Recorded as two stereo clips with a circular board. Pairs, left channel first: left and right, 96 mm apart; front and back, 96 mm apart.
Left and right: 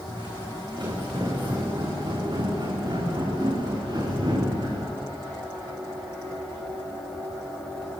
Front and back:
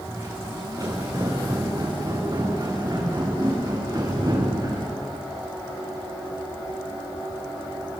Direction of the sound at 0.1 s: 125° right.